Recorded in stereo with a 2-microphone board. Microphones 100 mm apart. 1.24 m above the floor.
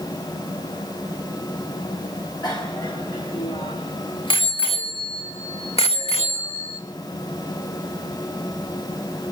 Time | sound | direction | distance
2.4 | a bicycle bell | 40° left (ahead or behind) | 5 m